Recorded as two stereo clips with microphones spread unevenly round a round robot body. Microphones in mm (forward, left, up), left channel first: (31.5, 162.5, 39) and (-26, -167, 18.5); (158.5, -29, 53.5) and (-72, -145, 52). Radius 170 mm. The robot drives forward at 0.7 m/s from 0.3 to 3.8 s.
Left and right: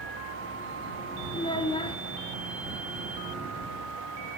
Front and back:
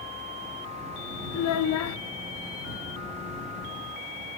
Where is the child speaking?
5° left, 1.5 m.